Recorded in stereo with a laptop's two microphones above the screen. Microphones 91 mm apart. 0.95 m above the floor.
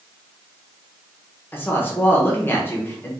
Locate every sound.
1.5 s a woman speaking: 20° left (ahead or behind), 0.8 m